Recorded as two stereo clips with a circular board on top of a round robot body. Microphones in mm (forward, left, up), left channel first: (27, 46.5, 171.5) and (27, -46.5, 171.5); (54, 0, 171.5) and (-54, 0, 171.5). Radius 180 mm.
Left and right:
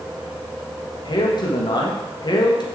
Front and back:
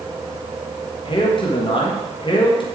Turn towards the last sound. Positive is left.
turn(degrees=45)